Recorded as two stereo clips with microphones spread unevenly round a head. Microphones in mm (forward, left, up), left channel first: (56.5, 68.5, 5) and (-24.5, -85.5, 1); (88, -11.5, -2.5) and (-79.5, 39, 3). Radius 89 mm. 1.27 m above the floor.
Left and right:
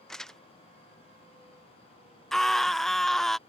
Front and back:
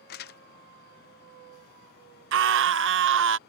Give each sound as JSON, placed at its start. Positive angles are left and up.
{"t": 0.1, "sound": "crumpling", "azimuth_deg": -25}
{"t": 2.3, "sound": "a scream", "azimuth_deg": 150}